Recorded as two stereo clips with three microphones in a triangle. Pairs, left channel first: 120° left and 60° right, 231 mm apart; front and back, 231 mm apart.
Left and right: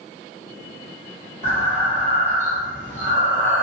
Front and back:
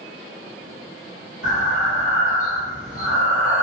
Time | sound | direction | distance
1.4 | breathing | 5° right | 1.4 m